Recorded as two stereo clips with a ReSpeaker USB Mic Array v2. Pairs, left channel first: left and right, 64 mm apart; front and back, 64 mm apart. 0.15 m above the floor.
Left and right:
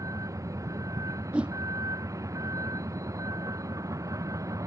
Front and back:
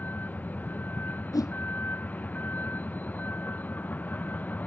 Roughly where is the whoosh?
Ahead.